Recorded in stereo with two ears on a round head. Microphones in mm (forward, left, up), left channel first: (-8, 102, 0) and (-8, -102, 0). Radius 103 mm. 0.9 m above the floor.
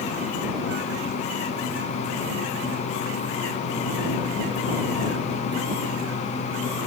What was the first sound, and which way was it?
Only background noise.